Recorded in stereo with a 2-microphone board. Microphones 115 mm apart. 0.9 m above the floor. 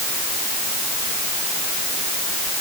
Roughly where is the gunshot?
No gunshot in this recording.